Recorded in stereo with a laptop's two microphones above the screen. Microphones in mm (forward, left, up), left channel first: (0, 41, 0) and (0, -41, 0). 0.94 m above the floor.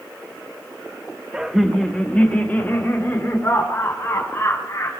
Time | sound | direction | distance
1.3 | laughter | 15° right (ahead or behind) | 0.7 m